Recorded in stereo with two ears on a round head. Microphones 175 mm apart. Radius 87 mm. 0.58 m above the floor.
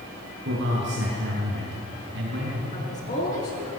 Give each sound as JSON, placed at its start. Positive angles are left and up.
{"t": 0.5, "sound": "a man speaking", "side_deg": -60, "distance_m": 6.5}
{"t": 2.7, "sound": "a woman speaking", "side_deg": 40, "distance_m": 8.0}